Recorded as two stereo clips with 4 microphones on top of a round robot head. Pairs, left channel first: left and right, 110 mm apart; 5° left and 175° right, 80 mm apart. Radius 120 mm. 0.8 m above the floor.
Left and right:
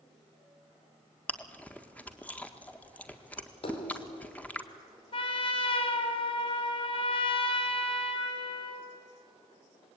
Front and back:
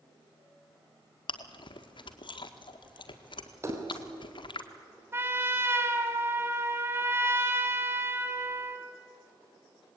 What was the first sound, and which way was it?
Chewing, 15° left.